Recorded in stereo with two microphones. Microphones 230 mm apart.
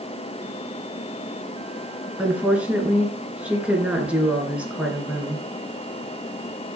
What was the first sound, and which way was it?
A woman speaking, 5° right (ahead or behind).